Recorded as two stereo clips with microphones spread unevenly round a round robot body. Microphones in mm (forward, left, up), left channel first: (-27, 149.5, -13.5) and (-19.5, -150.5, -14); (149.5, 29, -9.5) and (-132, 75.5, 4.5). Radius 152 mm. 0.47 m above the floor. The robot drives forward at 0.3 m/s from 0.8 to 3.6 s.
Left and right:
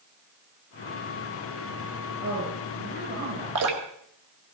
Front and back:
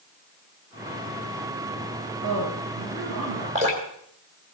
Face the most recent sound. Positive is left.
turn(degrees=-120)